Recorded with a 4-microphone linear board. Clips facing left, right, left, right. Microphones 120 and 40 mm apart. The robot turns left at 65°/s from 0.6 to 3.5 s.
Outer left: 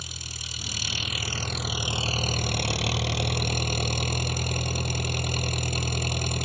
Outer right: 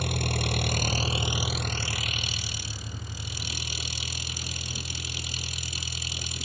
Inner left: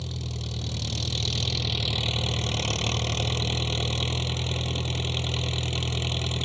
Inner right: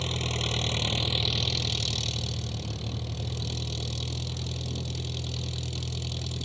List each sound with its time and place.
0.0 s an engine running: 115° right; by 6.5 s 55° left